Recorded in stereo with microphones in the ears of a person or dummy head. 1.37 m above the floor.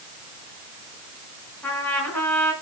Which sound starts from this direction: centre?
A trumpet, at 1.6 s.